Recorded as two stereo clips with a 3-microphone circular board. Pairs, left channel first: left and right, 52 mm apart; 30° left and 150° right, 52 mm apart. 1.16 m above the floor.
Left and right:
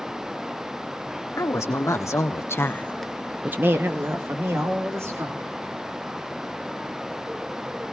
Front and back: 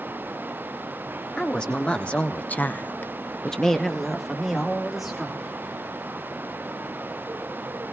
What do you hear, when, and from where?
1.4 s a woman speaking: 105° left, 2 m; by 5.5 s 65° right, 3.5 m